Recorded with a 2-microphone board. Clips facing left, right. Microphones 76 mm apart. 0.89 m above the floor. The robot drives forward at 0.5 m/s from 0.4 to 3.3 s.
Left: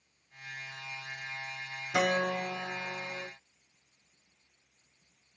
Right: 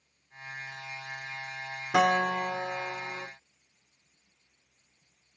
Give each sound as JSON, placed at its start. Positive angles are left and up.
{"t": 1.9, "sound": "a guitar", "side_deg": -80, "distance_m": 1.5}